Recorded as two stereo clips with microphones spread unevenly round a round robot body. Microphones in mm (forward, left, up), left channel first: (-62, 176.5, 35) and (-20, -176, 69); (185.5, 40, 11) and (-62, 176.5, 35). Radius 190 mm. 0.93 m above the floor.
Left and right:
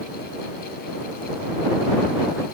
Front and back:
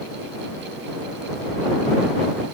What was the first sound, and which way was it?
Only background noise.